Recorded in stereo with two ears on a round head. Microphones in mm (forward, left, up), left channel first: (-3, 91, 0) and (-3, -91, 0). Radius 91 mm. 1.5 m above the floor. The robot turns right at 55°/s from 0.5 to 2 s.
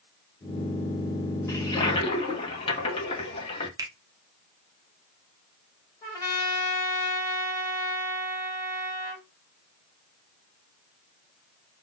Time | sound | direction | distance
1.5 | a toilet flushing | 15° left (ahead or behind) | 0.8 m
3.8 | a finger snap | 20° right (ahead or behind) | 0.6 m
6.0 | a trumpet | 15° left (ahead or behind) | 1.3 m